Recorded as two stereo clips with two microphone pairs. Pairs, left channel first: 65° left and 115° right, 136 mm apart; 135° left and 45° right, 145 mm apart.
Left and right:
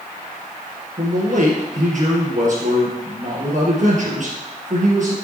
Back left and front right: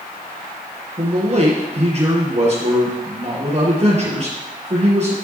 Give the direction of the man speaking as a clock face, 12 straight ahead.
3 o'clock.